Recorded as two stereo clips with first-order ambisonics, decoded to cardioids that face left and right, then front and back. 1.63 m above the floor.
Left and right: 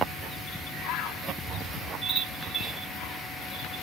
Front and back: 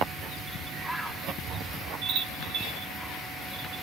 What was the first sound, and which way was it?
A bird, 95° left.